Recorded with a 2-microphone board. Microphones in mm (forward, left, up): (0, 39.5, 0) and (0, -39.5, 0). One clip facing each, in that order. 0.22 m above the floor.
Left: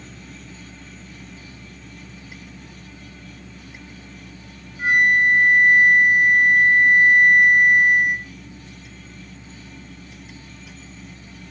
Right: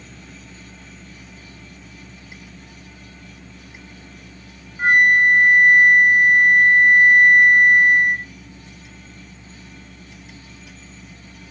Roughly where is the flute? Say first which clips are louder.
Right 3 dB; right.